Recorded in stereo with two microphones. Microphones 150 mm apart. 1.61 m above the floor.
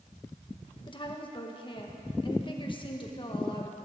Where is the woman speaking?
35° left (ahead or behind), 1.7 m.